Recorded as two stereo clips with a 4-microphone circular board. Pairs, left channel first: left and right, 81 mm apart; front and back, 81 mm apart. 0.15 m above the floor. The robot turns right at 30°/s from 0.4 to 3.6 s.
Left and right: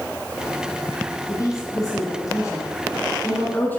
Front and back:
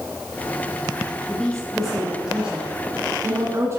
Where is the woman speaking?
75° left, 1.8 m; by 3.8 s 145° left, 1.8 m.